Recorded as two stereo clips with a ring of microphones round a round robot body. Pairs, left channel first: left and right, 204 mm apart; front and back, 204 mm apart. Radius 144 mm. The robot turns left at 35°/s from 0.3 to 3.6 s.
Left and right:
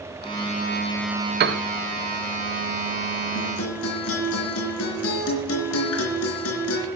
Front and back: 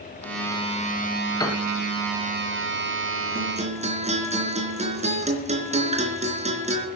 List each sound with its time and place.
1.4 s a piano: 75° right, 0.9 m; by 1.6 s 80° right, 0.9 m
3.4 s a guitar: 130° left, 3.5 m; by 6.9 s 120° left, 3.5 m